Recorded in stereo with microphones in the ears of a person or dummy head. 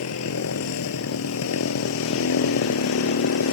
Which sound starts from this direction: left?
A motorcycle, at 0.0 s.